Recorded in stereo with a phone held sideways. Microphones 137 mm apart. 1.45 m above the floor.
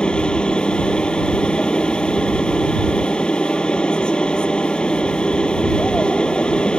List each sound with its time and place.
0.0 s a machine running: 5° left (ahead or behind)